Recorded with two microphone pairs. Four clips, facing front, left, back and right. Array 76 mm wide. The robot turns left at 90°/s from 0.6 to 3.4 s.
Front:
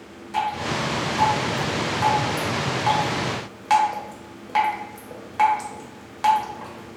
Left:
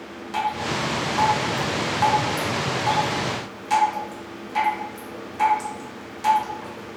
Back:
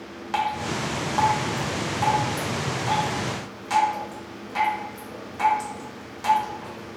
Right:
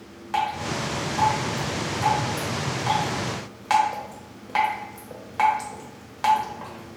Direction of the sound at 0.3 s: 155° right.